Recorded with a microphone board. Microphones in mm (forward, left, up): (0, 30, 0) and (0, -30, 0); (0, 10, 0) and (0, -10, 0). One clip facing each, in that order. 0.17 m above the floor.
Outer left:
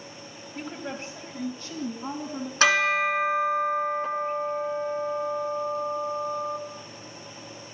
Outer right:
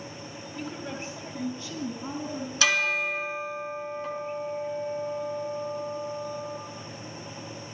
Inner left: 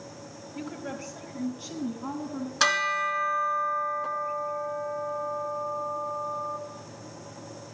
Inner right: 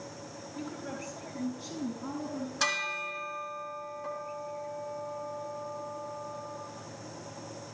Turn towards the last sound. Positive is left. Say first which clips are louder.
# outer left 5 dB, inner left 7 dB
turn(degrees=40)  # may be behind; listen again after turning